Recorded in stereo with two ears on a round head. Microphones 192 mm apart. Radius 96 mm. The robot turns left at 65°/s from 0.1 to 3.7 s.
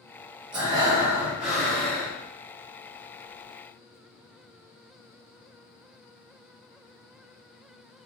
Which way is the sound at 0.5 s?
20° right (ahead or behind).